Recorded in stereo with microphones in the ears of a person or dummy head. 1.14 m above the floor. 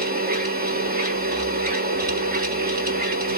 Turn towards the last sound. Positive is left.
turn(degrees=-40)  # may be behind; listen again after turning